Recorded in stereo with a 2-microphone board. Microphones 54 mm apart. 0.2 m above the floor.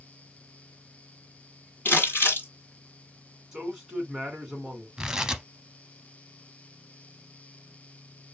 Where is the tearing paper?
15° right (ahead or behind), 0.5 m.